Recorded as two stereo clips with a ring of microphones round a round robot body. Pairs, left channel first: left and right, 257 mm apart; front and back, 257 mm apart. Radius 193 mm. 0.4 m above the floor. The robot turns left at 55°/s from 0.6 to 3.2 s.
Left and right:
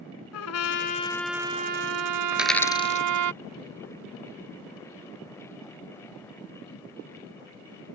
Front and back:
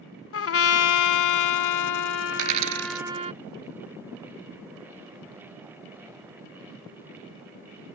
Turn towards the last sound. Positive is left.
turn(degrees=140)